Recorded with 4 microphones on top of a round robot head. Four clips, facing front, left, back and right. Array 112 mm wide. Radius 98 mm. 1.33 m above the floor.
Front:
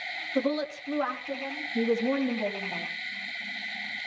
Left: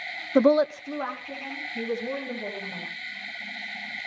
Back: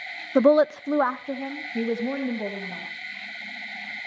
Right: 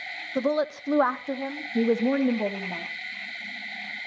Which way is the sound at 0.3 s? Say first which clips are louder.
Left 6 dB, back 11 dB; 140° left.